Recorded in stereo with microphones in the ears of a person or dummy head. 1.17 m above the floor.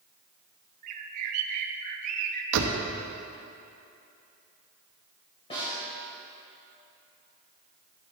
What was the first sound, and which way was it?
A bird, 45° right (ahead or behind).